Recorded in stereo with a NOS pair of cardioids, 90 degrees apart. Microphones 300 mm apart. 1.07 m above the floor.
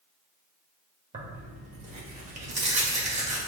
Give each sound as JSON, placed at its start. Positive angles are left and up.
{"t": 1.1, "sound": "tearing paper", "azimuth_deg": -25, "distance_m": 1.2}